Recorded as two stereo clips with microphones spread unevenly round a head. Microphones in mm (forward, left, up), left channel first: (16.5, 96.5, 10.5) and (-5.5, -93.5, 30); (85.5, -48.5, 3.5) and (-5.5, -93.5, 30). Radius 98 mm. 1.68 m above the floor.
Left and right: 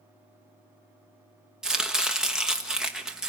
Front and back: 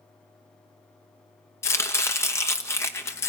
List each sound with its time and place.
1.6 s chopping: 35° right, 0.9 m